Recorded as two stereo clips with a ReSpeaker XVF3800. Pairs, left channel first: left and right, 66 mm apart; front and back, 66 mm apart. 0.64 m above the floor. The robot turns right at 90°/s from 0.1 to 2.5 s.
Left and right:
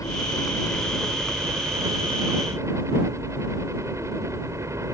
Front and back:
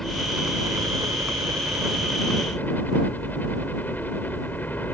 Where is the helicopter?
85° left; by 5.0 s 60° right.